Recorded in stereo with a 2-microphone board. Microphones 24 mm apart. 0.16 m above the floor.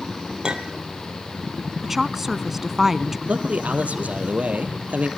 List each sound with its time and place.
0.4 s a clink: 35° right (ahead or behind), 2.5 m
1.8 s a woman speaking: 10° right (ahead or behind), 1.1 m
3.3 s a man speaking: 70° right (ahead or behind), 4 m